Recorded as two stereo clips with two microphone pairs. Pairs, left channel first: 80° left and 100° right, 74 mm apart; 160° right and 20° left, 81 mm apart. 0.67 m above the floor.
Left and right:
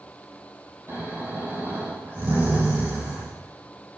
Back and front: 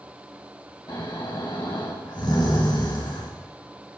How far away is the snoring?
About 6.5 m.